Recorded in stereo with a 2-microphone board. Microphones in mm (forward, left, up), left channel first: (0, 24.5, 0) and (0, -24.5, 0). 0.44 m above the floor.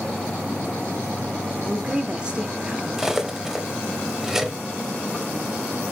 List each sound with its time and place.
1.6 s a woman speaking: 20° right (ahead or behind), 1.0 m
3.0 s cutlery clinking: 10° right (ahead or behind), 1.0 m